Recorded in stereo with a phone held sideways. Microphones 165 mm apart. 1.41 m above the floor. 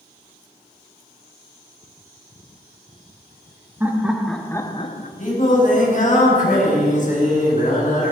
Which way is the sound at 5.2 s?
50° left (ahead or behind).